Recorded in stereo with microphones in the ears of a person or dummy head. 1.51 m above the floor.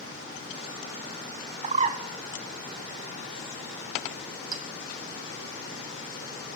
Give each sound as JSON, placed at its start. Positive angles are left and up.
{"t": 1.6, "sound": "a bird", "side_deg": -40, "distance_m": 0.7}
{"t": 4.5, "sound": "a clink", "side_deg": -20, "distance_m": 1.0}